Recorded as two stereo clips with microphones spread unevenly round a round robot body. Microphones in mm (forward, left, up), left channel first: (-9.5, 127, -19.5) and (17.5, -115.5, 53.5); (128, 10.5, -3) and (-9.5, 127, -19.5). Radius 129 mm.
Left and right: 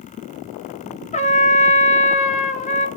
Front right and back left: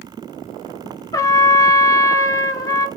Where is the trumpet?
30° left, 1.3 m.